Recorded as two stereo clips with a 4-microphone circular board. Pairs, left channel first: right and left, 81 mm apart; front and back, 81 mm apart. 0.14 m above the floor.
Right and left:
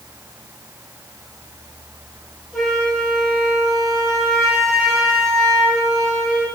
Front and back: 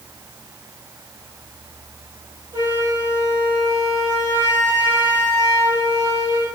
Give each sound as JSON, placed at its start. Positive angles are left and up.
{"t": 2.5, "sound": "a flute", "azimuth_deg": -170, "distance_m": 3.5}